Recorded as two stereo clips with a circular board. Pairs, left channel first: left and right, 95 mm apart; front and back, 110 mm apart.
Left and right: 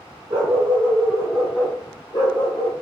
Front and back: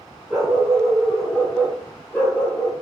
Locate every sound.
0.3 s a dog barking: 100° right, 1.3 m; by 2.7 s 70° left, 1.5 m